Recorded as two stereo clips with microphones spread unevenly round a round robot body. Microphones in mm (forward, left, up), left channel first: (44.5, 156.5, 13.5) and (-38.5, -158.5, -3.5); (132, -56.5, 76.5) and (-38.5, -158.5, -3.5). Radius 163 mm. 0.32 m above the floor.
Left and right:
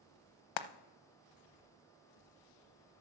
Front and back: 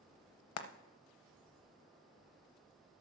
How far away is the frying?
About 0.7 m.